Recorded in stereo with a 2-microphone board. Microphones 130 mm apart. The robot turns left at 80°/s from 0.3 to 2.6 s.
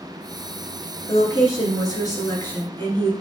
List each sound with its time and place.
1.1 s a woman speaking: 145° left, 1.5 m; by 3.1 s 25° left, 1.5 m